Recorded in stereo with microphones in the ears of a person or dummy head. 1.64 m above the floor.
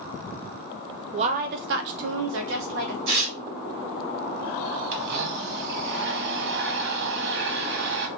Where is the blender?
65° right (ahead or behind), 0.7 m.